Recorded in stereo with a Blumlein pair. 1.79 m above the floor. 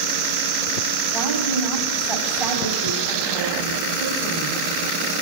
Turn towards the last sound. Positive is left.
turn(degrees=-15)